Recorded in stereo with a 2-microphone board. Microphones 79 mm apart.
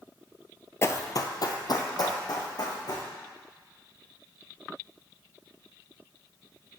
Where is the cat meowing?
I don't hear a cat meowing.